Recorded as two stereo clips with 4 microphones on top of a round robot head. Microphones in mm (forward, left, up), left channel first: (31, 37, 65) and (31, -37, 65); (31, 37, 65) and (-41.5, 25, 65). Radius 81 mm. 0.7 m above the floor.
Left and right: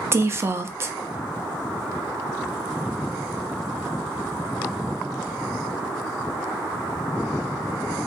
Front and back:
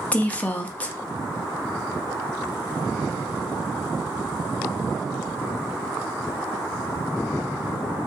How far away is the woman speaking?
About 0.6 m.